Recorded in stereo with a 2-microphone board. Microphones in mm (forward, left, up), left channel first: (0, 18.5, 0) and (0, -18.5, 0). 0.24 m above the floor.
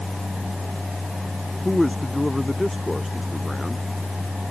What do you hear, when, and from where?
1.6 s a man speaking: centre (ahead or behind)